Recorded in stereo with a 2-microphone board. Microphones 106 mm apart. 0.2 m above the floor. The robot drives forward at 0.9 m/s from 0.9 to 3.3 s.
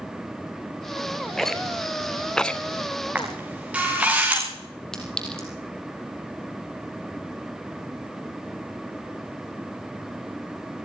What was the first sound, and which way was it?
A rattle, 5° left (ahead or behind).